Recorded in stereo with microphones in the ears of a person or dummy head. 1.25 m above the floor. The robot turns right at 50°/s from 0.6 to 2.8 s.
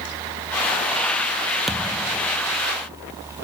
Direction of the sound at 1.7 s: 5° right.